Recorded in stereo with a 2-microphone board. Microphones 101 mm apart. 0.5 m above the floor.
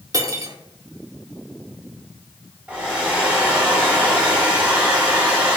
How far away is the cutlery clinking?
About 0.8 m.